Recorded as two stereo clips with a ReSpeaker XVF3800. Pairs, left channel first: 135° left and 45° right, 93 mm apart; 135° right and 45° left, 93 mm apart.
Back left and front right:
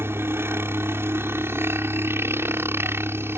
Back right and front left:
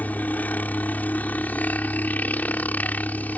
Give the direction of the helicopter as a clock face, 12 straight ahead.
3 o'clock.